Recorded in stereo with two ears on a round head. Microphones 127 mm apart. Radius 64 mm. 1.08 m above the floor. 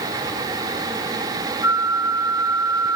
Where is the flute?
15° right (ahead or behind), 2.5 m.